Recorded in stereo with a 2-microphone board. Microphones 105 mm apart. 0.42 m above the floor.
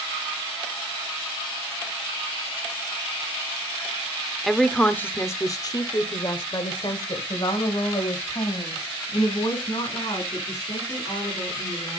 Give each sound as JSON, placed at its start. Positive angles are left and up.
{"t": 4.4, "sound": "a woman speaking", "side_deg": 0, "distance_m": 0.9}